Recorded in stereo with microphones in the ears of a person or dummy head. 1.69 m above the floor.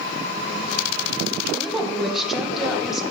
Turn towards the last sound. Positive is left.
turn(degrees=-5)  # may be behind; listen again after turning